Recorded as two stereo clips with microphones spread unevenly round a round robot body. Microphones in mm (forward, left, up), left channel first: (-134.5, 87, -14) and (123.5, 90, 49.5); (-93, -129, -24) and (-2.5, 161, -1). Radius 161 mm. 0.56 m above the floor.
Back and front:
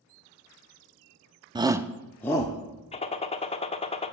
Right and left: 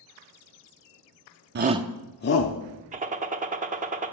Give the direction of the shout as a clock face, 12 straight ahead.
9 o'clock.